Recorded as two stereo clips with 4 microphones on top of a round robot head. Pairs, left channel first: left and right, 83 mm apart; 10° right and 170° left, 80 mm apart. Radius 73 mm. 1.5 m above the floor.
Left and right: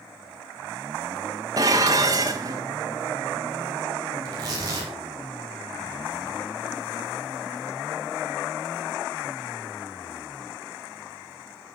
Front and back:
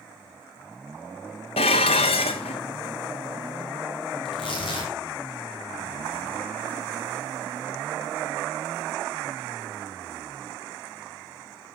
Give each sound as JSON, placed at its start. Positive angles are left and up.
{"t": 1.6, "sound": "dishes clattering", "azimuth_deg": -30, "distance_m": 1.2}
{"t": 4.2, "sound": "tearing paper", "azimuth_deg": -35, "distance_m": 5.5}